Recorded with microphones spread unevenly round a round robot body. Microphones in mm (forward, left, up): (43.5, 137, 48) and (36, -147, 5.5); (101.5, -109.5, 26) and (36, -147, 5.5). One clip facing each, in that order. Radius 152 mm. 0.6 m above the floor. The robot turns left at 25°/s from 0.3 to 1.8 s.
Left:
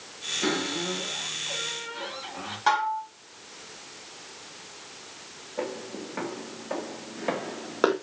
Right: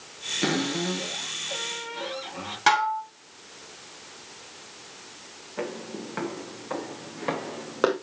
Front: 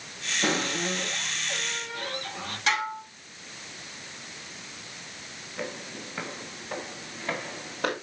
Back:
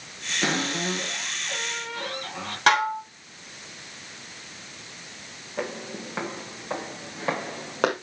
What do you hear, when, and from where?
0.4 s a cupboard door: 135° right, 6.5 m; by 2.6 s 170° right, 6.5 m
2.7 s dishes clattering: 135° right, 1.5 m
5.6 s footsteps: 155° right, 4 m; by 7.9 s 175° left, 2.5 m